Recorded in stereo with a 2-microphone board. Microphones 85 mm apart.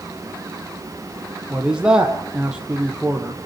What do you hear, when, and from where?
1.5 s a man speaking: 10° right (ahead or behind), 5.5 m